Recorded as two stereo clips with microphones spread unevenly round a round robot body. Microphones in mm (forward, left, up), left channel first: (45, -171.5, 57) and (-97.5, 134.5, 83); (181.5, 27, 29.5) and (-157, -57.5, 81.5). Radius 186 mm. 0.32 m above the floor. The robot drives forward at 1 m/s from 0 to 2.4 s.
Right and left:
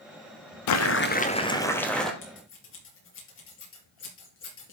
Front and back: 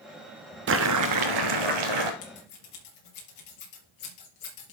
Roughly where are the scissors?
Ahead.